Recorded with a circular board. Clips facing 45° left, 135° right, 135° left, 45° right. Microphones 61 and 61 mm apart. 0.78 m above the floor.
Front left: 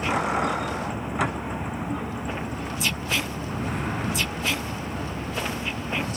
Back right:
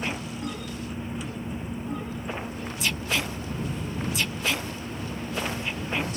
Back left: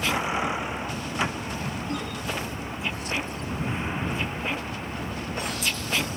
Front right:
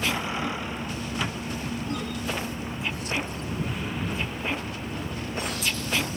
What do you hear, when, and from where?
0.0 s a vehicle: 65° left; by 6.2 s 75° left